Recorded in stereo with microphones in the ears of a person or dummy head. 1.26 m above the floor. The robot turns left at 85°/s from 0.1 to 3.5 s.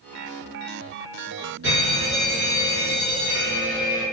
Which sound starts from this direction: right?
An alarm, at 1.6 s.